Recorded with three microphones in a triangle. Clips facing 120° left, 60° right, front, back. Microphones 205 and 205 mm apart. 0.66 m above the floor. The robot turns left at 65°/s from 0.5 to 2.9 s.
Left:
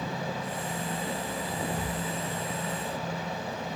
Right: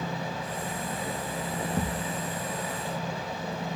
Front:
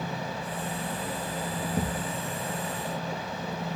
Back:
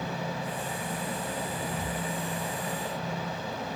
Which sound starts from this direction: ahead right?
A thud, at 1.8 s.